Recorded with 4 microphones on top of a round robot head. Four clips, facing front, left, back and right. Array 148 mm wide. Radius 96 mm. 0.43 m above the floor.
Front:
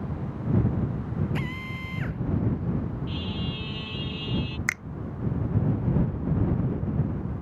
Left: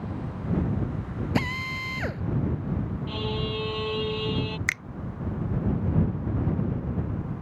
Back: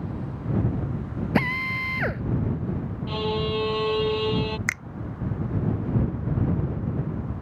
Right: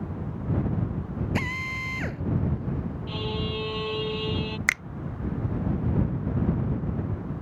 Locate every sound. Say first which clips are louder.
1.4 s a drill: left 2 dB, back 8 dB; 165° left
3.1 s a violin: even, back 7 dB; straight behind
4.7 s a finger snap: right 4 dB, back 1 dB; 95° right